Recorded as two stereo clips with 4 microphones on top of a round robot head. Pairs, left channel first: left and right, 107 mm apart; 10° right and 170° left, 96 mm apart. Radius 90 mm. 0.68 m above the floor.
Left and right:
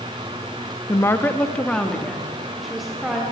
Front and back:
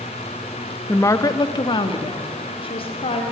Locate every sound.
0.9 s a woman speaking: 40° left, 0.9 m; by 3.2 s 5° right, 2 m